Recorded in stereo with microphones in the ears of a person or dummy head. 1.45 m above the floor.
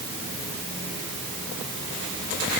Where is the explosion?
No explosion in this recording.